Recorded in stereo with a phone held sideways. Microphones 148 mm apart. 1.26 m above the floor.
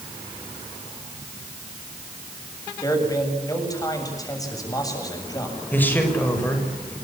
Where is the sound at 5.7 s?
10° left (ahead or behind), 6.5 m.